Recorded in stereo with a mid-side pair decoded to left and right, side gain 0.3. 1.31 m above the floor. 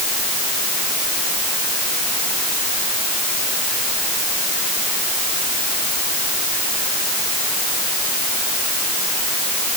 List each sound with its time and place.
Only background noise.